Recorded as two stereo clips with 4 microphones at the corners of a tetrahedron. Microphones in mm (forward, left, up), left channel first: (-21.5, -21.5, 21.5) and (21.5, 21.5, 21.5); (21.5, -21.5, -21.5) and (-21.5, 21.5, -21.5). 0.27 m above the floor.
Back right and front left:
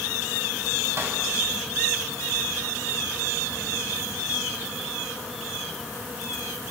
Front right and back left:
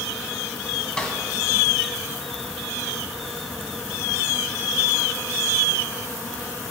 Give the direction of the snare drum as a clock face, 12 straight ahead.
11 o'clock.